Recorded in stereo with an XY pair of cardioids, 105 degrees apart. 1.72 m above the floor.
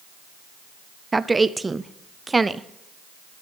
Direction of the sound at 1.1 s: 20° right.